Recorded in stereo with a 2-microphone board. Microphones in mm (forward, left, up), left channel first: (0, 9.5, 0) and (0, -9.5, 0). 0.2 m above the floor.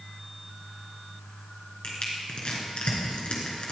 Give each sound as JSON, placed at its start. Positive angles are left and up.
{"t": 1.8, "sound": "crushing", "side_deg": 60, "distance_m": 3.0}